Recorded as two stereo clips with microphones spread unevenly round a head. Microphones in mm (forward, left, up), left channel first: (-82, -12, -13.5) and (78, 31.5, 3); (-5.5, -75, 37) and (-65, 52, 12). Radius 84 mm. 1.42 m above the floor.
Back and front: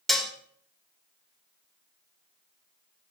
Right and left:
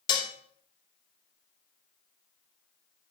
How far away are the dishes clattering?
About 0.7 m.